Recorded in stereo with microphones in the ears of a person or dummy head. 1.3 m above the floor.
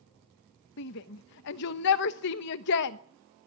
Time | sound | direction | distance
0.8 | a shout | 65° left (ahead or behind) | 1.0 m